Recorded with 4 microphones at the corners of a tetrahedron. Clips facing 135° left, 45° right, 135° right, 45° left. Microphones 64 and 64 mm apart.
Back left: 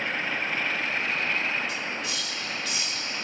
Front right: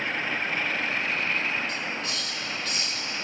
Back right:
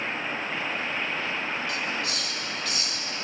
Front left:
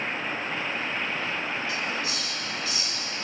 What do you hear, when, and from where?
1.7 s a hiss: 140° right, 1.9 m